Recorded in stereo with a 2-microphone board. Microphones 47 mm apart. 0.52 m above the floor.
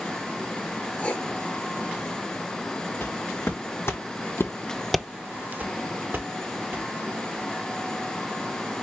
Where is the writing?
30° left (ahead or behind), 1.9 m.